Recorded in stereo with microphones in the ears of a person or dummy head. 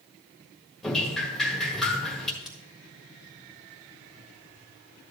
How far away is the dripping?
About 1.4 m.